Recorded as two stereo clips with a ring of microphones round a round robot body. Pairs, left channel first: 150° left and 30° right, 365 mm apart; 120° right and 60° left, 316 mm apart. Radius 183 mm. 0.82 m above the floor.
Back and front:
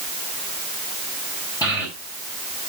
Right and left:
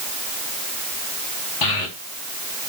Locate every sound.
1.6 s a child speaking: 130° right, 3.5 m